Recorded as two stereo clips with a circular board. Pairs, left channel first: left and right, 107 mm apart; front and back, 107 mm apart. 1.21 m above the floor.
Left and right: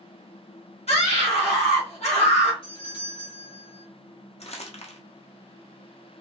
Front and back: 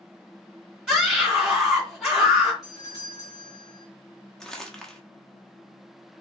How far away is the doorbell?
About 2 m.